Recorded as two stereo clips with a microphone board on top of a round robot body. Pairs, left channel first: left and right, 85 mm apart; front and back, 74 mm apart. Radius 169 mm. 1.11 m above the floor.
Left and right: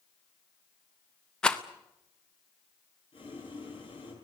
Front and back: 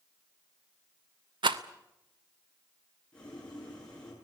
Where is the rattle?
170° left, 0.7 m.